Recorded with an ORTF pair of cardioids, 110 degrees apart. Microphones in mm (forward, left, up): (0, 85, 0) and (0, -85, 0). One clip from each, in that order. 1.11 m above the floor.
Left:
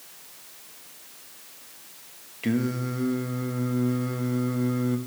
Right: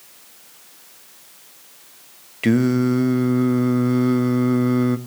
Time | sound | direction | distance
2.4 | singing | 40° right | 0.8 m